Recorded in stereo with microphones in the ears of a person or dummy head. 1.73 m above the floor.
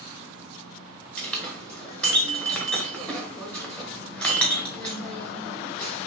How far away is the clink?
About 1.3 m.